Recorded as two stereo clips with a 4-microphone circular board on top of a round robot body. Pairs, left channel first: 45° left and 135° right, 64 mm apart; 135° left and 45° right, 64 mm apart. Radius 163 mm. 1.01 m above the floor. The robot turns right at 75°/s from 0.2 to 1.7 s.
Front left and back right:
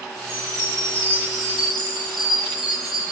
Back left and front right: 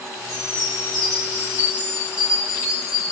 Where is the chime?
80° right, 0.5 m; by 3.1 s 30° left, 0.5 m.